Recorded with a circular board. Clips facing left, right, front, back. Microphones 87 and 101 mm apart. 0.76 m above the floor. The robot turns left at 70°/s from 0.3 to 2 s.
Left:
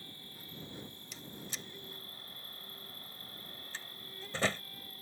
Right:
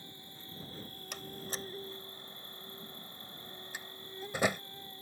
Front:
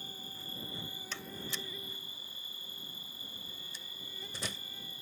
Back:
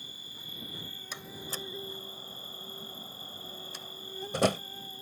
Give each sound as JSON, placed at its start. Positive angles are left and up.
{"t": 0.0, "sound": "an insect", "azimuth_deg": -25}
{"t": 1.1, "sound": "a door slam", "azimuth_deg": -105}